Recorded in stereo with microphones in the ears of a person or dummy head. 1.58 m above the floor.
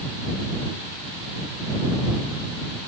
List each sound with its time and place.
Only background noise.